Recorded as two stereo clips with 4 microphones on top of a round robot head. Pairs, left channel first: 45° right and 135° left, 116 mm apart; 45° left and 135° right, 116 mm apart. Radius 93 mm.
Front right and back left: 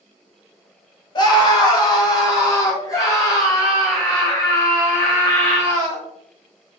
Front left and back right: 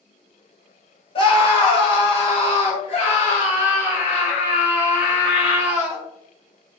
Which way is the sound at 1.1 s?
5° left.